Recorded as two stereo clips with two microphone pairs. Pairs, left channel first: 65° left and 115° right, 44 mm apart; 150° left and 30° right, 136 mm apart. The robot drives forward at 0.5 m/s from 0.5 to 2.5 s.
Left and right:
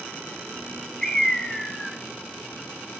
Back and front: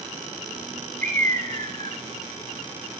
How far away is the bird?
About 4.5 m.